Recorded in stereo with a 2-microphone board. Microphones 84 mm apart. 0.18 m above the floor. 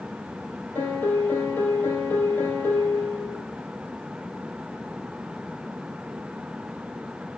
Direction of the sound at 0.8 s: 25° left (ahead or behind).